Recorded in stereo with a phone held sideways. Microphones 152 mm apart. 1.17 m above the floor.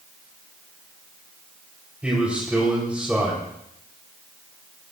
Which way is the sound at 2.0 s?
10° right (ahead or behind).